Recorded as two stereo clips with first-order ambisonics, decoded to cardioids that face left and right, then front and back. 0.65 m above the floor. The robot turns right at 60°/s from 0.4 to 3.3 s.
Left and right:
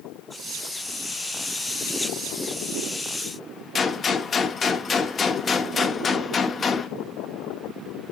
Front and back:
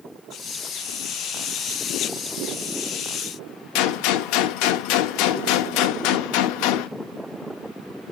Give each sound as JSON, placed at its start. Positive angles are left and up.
{"t": 3.8, "sound": "a gunshot", "azimuth_deg": 20, "distance_m": 0.6}